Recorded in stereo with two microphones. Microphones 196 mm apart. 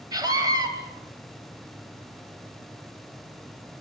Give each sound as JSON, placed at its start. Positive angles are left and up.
{"t": 0.1, "sound": "a scream", "side_deg": -20, "distance_m": 2.5}